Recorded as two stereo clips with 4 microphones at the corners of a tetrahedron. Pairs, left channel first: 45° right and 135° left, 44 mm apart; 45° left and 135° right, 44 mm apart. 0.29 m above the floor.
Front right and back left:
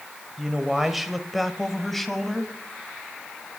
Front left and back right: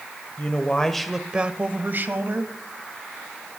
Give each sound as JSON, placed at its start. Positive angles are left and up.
{"t": 0.4, "sound": "a man speaking", "azimuth_deg": 60, "distance_m": 1.2}